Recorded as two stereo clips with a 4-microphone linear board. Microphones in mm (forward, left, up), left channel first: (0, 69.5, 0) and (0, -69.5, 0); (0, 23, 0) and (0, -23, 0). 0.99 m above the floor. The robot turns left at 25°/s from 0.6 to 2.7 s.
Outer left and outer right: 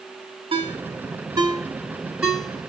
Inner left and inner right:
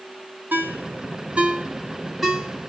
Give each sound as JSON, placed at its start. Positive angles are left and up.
{"t": 0.5, "sound": "a ringtone", "side_deg": -45, "distance_m": 1.3}